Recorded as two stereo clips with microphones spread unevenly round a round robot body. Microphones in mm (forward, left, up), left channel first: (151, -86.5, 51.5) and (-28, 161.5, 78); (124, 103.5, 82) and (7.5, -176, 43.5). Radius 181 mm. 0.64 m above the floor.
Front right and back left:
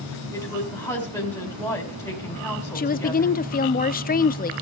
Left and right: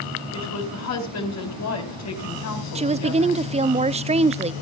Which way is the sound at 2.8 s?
75° right.